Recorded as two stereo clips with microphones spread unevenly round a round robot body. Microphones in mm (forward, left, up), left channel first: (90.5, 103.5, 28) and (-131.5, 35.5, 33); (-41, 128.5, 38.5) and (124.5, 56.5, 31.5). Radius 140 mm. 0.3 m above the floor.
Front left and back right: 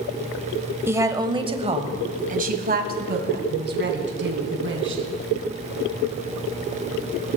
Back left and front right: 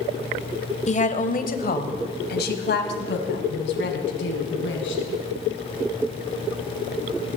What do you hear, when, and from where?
0.9 s a woman speaking: 120° left, 1.5 m; by 5.0 s 165° left, 3.5 m